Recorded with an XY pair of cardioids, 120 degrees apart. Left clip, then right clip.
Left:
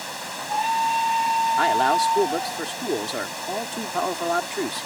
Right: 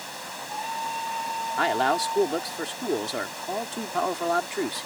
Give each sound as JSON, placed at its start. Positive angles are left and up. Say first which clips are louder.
{"t": 0.0, "sound": "running water", "louder": "left 4 dB", "azimuth_deg": 25}
{"t": 1.6, "sound": "a man speaking", "louder": "even", "azimuth_deg": 5}